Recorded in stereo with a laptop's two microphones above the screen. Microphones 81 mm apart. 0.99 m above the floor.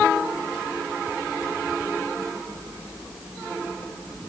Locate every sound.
Only background noise.